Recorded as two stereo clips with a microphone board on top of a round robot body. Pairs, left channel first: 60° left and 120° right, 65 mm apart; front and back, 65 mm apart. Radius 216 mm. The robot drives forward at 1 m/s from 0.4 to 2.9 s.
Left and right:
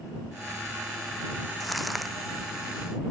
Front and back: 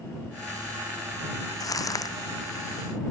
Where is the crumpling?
30° right.